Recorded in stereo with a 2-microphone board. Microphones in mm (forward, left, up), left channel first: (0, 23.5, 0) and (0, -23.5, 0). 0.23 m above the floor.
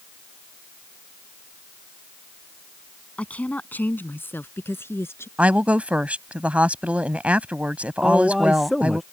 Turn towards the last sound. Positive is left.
turn(degrees=0)  # may be behind; listen again after turning